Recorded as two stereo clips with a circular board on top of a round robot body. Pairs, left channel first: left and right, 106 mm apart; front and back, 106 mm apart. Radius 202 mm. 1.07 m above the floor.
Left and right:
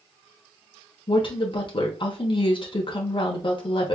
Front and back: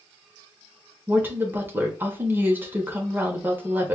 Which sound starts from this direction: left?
A woman speaking, at 1.1 s.